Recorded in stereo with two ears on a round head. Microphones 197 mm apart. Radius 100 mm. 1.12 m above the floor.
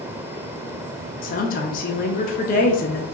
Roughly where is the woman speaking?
Left.